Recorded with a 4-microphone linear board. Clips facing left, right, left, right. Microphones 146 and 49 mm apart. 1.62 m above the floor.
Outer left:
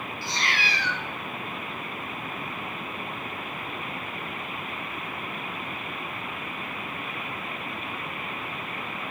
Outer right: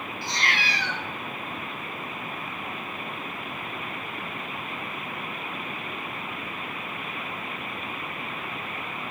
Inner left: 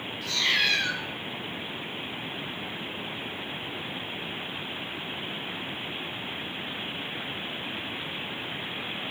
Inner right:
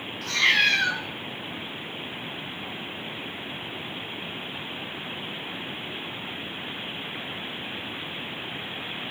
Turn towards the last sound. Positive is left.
turn(degrees=-60)  # may be behind; listen again after turning